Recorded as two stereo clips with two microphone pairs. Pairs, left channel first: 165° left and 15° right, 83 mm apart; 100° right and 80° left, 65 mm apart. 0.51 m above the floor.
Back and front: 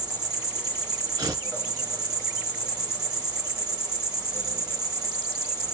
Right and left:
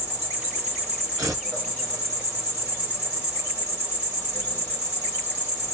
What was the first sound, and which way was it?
An insect, 35° left.